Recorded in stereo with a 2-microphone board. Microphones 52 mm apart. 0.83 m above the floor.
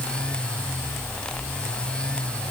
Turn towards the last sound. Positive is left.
No sound to turn to.